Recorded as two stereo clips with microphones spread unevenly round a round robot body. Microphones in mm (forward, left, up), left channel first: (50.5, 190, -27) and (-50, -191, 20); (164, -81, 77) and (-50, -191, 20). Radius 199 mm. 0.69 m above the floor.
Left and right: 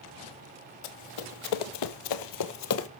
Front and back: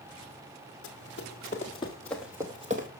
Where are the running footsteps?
70° left, 1.5 m; by 2.9 s 135° left, 1.2 m.